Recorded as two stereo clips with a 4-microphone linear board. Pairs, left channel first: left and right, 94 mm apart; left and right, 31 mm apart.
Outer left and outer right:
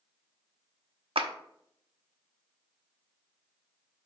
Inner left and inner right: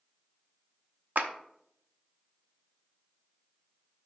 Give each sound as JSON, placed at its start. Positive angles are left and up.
{"t": 1.1, "sound": "a clap", "side_deg": -75, "distance_m": 0.8}